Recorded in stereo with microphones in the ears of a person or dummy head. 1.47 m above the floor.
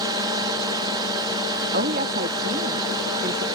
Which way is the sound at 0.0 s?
20° right (ahead or behind).